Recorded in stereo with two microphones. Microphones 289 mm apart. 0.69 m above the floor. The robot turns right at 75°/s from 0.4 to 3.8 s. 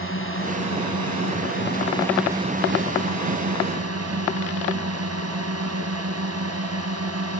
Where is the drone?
45° left; by 7.4 s 60° right.